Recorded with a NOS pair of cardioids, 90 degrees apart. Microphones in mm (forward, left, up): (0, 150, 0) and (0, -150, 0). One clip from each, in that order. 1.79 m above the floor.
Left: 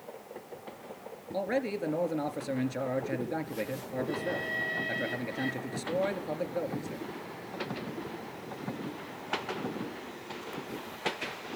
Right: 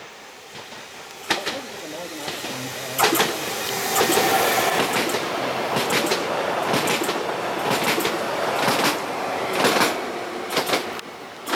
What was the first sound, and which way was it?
A man speaking, 45° left.